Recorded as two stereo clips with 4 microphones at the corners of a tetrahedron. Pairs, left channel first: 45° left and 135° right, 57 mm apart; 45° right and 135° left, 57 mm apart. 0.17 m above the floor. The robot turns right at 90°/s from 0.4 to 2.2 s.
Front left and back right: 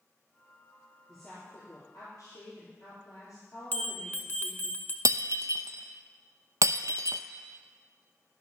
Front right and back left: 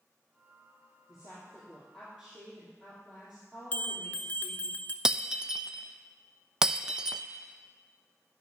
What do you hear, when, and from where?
1.1 s a woman speaking: 30° right, 3.5 m; by 4.7 s 70° left, 3.5 m
3.7 s a bell: 5° left, 1.0 m
5.0 s breaking glass: 145° right, 0.5 m